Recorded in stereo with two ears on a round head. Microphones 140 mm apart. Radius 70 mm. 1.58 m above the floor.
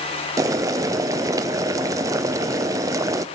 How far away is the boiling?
About 0.6 m.